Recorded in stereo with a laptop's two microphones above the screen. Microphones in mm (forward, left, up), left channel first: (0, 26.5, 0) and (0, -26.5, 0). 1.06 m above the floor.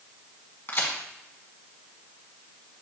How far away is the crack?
About 1.6 m.